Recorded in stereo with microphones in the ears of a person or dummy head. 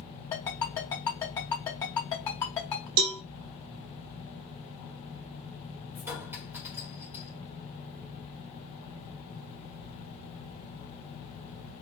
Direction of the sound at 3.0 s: 85° right.